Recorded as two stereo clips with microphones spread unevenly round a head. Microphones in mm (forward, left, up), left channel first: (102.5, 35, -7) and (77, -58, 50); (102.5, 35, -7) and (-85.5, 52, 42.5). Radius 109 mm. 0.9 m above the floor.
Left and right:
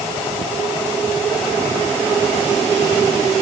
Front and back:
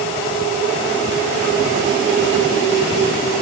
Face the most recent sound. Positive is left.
No sound to turn to.